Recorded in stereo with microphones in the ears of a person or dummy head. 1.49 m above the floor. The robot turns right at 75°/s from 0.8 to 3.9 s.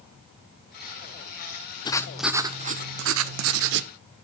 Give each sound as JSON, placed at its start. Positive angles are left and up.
{"t": 1.9, "sound": "writing", "azimuth_deg": 155, "distance_m": 0.6}